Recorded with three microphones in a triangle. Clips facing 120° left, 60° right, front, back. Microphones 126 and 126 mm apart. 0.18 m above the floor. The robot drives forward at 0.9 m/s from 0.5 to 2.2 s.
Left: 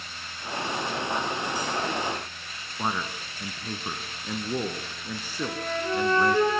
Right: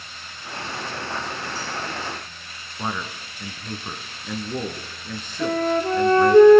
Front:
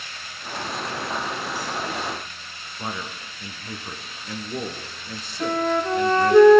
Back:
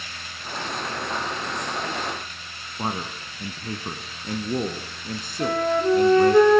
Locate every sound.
2.8 s a man speaking: 165° right, 1.5 m
5.4 s a flute: 95° right, 3 m